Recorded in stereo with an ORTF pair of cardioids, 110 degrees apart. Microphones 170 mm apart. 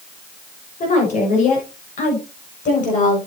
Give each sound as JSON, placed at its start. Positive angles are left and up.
{"t": 0.8, "sound": "a woman speaking", "azimuth_deg": 45, "distance_m": 6.5}